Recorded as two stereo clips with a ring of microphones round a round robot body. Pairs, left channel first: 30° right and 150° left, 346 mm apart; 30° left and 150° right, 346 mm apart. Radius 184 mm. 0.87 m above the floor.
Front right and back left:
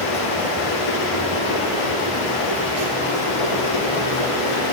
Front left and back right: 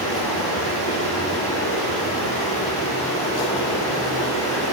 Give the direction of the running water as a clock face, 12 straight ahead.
1 o'clock.